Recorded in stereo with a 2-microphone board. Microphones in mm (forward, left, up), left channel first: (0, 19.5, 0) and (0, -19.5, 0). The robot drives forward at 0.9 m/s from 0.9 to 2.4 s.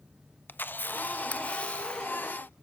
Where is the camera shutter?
55° left (ahead or behind), 0.6 m; by 2.5 s 15° left (ahead or behind), 1.8 m.